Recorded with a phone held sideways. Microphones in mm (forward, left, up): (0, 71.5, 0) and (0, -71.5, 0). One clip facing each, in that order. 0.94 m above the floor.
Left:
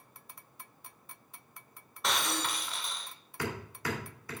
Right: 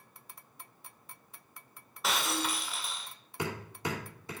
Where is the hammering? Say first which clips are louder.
Right 1 dB; 25° right (ahead or behind), 2.5 m.